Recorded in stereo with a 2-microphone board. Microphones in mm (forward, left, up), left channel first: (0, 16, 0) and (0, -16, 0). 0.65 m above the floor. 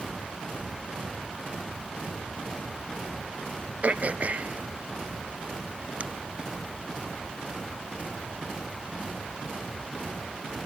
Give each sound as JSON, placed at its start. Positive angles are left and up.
{"t": 3.8, "sound": "throat clearing", "side_deg": -45, "distance_m": 0.8}